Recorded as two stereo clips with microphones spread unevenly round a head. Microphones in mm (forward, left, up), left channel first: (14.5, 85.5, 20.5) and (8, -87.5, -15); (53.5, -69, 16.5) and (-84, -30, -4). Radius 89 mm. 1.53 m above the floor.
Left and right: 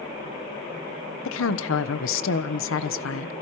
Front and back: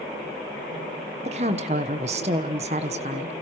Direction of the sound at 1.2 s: 110° left.